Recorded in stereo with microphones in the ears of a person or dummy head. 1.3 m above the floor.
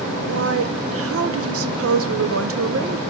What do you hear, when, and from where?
0.3 s a woman speaking: 65° right (ahead or behind), 0.9 m